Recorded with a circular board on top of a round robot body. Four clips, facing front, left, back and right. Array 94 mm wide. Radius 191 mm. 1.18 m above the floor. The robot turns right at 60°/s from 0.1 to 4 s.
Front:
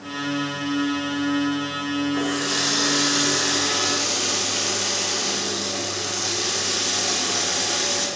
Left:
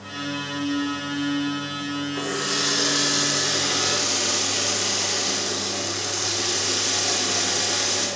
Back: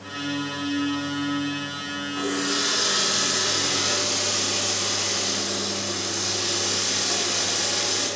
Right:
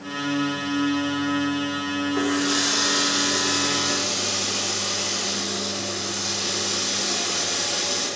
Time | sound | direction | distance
2.1 | a running tap | 70° right | 2.5 m